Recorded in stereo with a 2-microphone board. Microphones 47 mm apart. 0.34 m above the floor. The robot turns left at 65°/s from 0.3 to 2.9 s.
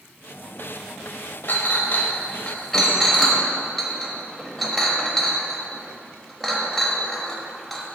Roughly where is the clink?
Left.